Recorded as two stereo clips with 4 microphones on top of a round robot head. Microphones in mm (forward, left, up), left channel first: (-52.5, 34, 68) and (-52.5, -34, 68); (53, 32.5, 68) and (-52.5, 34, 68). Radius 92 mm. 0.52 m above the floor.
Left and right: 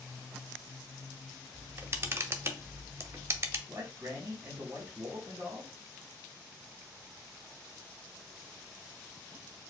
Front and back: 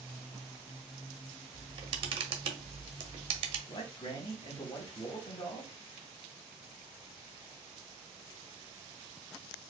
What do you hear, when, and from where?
1.5 s a camera shutter: 145° right, 0.7 m
3.7 s a man speaking: 25° right, 1.0 m